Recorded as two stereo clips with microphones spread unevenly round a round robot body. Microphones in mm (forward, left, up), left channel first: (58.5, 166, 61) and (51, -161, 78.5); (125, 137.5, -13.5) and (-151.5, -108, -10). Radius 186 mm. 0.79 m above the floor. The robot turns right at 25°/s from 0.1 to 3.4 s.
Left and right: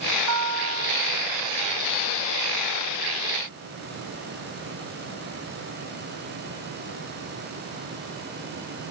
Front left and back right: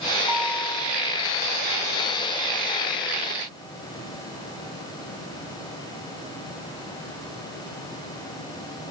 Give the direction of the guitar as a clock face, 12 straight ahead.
2 o'clock.